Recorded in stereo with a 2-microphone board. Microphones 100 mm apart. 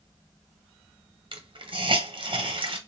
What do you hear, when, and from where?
1.3 s a hiss: 50° right (ahead or behind), 0.8 m